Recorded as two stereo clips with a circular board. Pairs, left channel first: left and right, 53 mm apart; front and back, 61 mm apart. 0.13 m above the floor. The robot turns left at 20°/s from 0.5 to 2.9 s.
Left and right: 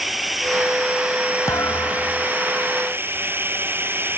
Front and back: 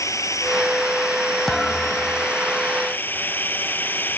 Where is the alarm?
I don't hear an alarm.